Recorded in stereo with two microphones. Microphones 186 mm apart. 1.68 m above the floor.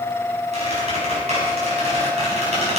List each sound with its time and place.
0.5 s a squeak: 35° right (ahead or behind), 5.5 m